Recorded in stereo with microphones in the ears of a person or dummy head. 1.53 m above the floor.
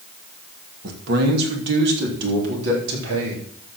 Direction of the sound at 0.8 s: 60° right (ahead or behind).